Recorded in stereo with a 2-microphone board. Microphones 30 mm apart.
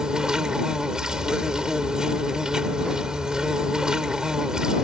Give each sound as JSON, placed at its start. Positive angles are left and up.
{"t": 0.0, "sound": "an insect", "side_deg": -25}